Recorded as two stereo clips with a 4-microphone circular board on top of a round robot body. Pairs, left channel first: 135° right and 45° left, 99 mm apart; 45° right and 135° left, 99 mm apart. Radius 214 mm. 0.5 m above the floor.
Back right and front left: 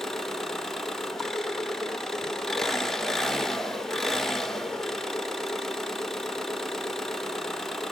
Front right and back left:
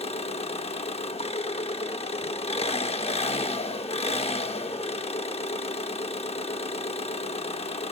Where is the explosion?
I don't hear an explosion.